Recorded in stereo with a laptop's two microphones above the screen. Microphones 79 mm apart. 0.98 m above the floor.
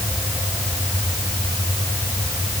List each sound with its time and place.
Only background noise.